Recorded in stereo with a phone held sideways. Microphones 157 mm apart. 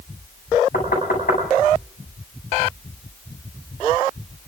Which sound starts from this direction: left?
Knocking, at 0.7 s.